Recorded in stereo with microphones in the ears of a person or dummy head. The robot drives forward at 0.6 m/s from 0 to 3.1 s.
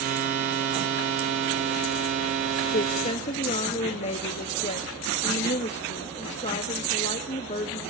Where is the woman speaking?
45° left (ahead or behind), 0.7 m; by 7.8 s 35° left (ahead or behind), 0.8 m.